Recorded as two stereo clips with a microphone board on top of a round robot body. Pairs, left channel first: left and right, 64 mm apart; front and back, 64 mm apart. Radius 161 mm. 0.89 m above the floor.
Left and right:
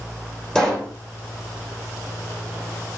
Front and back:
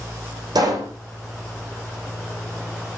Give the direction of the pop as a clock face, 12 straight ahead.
6 o'clock.